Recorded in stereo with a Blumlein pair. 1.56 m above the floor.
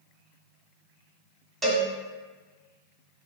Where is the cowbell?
15° right, 1.0 m.